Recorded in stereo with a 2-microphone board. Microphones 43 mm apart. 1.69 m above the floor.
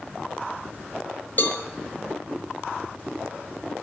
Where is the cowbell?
45° left (ahead or behind), 0.5 m.